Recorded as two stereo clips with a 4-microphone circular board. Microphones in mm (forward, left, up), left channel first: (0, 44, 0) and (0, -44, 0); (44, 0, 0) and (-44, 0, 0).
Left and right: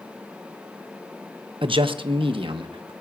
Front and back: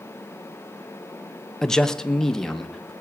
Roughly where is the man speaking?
Right.